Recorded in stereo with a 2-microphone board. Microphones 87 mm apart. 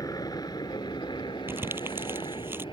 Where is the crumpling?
25° right (ahead or behind).